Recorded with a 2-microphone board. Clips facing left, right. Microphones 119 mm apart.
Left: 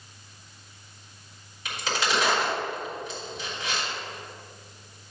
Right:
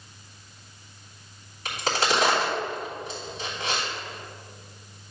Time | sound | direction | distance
1.6 | a crack | 40° right (ahead or behind) | 3 m